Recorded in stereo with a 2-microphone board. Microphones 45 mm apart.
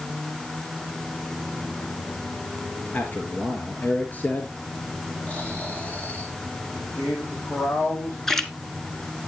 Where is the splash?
10° left (ahead or behind), 1.0 m.